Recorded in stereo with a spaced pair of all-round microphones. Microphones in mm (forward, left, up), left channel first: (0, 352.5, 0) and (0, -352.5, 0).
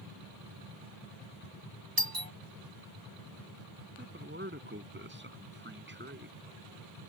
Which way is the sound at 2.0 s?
30° right (ahead or behind).